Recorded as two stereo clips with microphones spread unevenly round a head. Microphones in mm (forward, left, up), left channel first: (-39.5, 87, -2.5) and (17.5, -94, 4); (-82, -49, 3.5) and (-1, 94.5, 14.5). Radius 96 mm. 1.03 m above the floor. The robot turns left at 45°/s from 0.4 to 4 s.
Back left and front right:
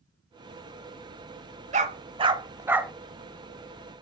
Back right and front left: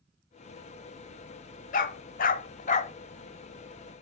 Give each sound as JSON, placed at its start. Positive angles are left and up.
{"t": 1.7, "sound": "a dog barking", "azimuth_deg": -100, "distance_m": 1.0}